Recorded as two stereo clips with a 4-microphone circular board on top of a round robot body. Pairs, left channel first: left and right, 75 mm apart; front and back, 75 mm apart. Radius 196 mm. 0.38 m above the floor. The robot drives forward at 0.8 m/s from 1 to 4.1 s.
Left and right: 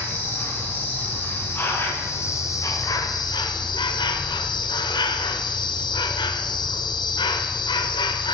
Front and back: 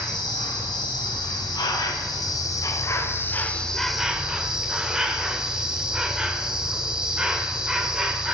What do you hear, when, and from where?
0.0 s an insect: 25° left, 2.5 m; by 8.3 s 100° left, 1.1 m